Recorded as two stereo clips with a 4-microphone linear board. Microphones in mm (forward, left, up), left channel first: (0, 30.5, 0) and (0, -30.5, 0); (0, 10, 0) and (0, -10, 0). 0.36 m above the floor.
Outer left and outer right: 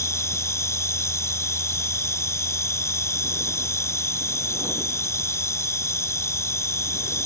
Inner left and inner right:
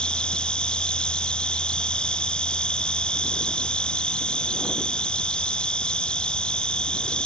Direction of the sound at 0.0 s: 50° left (ahead or behind).